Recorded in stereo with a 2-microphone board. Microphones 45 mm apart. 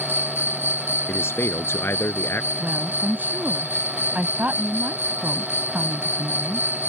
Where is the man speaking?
65° left (ahead or behind).